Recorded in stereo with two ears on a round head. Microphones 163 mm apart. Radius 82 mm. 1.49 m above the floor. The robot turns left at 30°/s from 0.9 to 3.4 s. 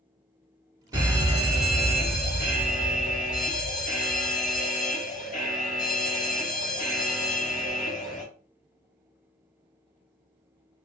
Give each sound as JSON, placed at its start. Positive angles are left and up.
{"t": 0.9, "sound": "a fire alarm", "azimuth_deg": -160, "distance_m": 3.0}